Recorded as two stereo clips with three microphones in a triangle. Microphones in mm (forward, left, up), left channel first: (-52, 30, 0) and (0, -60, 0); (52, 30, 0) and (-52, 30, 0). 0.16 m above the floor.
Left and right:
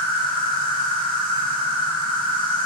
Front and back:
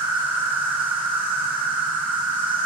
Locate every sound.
0.0 s an insect: 110° left, 1.0 m